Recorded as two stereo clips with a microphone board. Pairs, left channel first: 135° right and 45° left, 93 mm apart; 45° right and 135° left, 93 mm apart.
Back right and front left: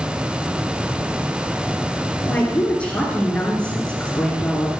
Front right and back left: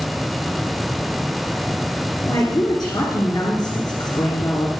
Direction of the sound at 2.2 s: 65° right.